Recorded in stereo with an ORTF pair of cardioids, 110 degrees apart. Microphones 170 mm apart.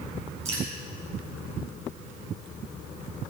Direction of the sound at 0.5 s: 40° right.